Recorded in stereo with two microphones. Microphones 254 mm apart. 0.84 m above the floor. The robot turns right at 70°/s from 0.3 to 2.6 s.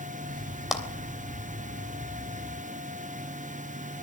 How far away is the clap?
About 3 m.